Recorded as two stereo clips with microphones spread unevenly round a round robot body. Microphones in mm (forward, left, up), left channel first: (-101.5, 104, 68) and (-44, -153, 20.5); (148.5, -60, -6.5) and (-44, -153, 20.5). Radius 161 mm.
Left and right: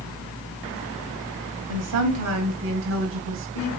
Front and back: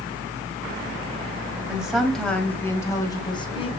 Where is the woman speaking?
65° right, 2.5 m; by 3.7 s 35° right, 2.5 m.